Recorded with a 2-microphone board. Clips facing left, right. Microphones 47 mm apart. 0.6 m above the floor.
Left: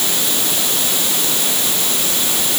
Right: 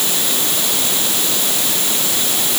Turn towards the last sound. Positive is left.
No sound to turn to.